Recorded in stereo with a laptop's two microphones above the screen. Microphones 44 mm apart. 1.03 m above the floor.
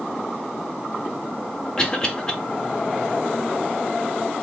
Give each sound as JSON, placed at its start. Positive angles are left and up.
{"t": 1.8, "sound": "a cough", "side_deg": 20, "distance_m": 1.2}